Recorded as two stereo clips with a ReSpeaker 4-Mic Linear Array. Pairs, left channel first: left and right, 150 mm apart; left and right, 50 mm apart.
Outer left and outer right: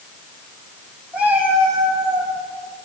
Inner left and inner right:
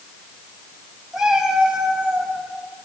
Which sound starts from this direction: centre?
A cat meowing, at 1.1 s.